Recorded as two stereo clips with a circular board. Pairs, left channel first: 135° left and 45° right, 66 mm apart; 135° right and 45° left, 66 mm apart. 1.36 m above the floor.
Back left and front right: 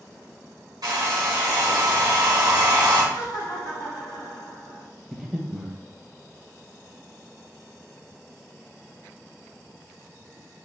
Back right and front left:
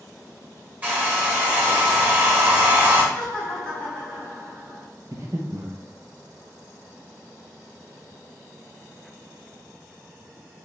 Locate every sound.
0.8 s a hair dryer: 25° right, 1.3 m
3.1 s laughter: 150° left, 1.3 m
5.1 s breathing: 40° left, 0.7 m